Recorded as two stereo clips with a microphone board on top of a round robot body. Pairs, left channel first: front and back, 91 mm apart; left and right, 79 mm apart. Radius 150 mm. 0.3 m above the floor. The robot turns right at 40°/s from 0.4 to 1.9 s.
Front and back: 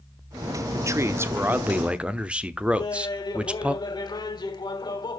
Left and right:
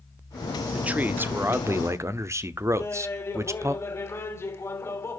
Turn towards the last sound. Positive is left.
turn(degrees=35)